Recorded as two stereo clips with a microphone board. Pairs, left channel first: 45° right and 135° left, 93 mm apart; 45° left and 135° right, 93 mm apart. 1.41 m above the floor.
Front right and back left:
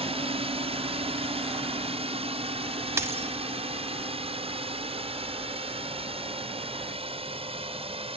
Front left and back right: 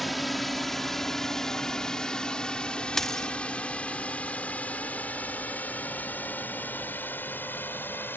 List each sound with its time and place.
0.0 s a drone: 135° left; by 8.2 s 115° left
3.0 s a dropped coin: 130° left